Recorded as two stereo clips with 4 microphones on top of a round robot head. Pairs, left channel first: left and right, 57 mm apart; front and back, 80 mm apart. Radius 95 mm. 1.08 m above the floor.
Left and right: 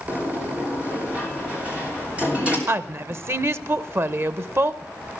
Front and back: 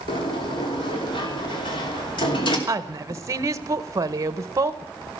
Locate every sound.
0.1 s a sliding door: 20° right, 3 m
2.7 s a woman speaking: 130° right, 1.1 m